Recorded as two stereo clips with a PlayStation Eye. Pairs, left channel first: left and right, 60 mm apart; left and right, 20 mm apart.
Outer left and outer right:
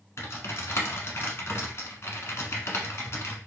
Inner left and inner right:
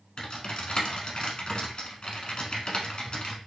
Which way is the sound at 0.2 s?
50° left (ahead or behind).